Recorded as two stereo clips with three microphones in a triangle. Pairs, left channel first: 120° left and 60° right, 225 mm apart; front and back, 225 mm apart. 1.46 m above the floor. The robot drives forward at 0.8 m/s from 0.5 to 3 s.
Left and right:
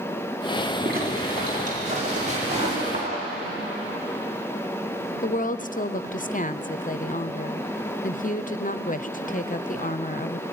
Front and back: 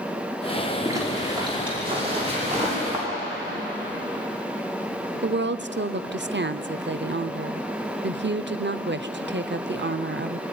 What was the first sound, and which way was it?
A zipper, 105° right.